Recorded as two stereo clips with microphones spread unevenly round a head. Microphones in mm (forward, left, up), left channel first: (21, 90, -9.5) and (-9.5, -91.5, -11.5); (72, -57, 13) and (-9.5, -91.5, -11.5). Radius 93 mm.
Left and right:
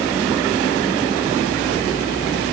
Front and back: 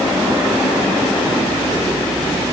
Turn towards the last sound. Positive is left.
No sound to turn to.